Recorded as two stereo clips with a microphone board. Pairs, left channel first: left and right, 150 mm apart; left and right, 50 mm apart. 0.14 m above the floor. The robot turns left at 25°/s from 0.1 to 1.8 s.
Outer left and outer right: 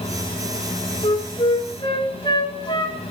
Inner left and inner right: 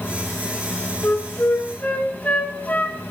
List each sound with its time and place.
1.0 s a flute: 40° left (ahead or behind), 0.6 m; by 3.1 s 35° left (ahead or behind), 0.6 m